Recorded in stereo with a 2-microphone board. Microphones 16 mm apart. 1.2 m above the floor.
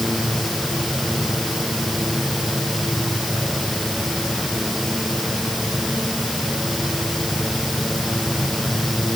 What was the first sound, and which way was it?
Only background noise.